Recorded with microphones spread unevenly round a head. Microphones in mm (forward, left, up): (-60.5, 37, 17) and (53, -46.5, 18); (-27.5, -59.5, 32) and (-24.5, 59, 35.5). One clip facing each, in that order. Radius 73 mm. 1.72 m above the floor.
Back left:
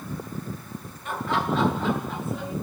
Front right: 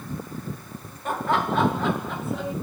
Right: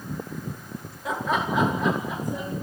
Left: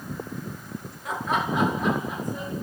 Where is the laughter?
90° right, 4 m; by 2.5 s 65° right, 5.5 m.